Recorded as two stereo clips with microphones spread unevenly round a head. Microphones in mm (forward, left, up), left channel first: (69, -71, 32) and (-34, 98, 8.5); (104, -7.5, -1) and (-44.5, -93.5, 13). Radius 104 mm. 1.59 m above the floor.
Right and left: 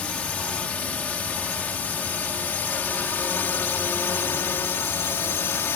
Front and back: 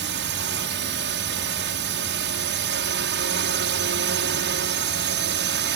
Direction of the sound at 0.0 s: 145° right.